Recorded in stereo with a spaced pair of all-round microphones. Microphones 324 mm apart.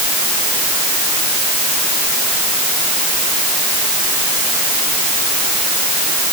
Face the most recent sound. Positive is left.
No sound to turn to.